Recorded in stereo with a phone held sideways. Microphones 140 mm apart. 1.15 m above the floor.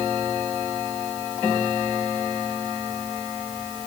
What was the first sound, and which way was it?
Only background noise.